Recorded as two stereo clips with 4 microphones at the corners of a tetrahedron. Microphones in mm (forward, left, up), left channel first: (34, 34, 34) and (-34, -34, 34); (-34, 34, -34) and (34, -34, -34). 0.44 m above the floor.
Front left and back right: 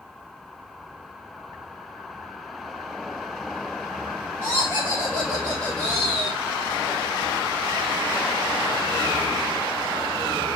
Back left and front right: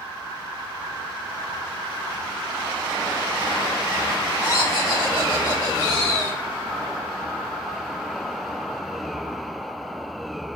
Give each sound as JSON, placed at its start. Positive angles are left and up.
{"t": 4.4, "sound": "laughter", "azimuth_deg": 100, "distance_m": 2.5}